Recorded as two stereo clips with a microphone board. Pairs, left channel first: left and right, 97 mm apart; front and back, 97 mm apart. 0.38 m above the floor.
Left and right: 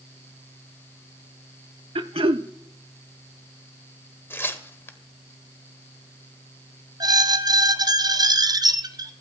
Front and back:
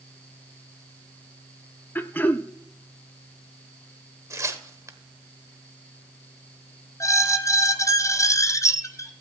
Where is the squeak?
50° right, 0.7 m.